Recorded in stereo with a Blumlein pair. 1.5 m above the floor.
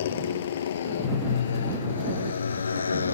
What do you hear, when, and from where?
0.0 s a motorcycle: 60° left; by 3.1 s 75° left